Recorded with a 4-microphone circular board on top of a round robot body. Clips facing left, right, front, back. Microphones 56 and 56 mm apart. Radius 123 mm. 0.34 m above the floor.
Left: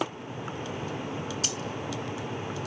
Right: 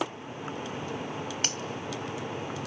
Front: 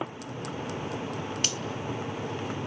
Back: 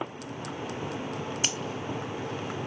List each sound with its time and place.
1.4 s a finger snap: 115° right, 1.6 m